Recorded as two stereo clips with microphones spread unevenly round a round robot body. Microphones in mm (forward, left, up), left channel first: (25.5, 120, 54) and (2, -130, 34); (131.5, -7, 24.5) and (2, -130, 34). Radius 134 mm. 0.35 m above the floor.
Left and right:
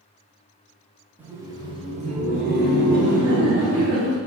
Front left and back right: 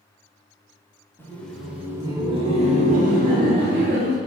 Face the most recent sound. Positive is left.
turn(degrees=-120)